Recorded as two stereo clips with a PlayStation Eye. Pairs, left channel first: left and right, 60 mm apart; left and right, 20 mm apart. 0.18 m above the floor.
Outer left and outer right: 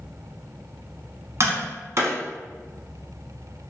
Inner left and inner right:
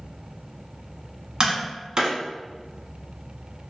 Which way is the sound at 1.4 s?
45° right (ahead or behind).